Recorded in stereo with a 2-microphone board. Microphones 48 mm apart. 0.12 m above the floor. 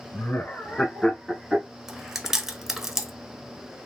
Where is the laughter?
45° left (ahead or behind), 1.5 m; by 1.7 s 15° right (ahead or behind), 1.2 m.